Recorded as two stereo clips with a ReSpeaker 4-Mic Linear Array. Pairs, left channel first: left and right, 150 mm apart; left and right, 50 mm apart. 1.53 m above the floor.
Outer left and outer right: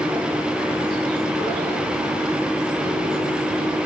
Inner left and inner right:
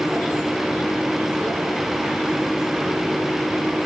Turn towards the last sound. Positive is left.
No sound to turn to.